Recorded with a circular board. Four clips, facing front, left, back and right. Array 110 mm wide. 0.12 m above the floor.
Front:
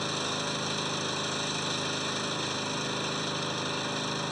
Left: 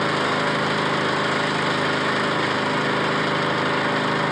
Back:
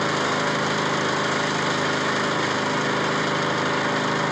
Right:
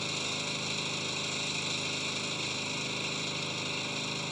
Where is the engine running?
125° left.